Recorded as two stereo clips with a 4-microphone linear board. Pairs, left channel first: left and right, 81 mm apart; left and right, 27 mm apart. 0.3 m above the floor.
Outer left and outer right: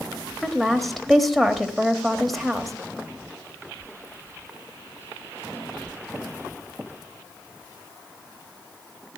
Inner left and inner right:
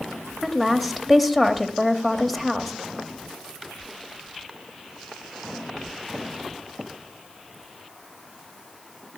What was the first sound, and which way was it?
A woman speaking, centre (ahead or behind).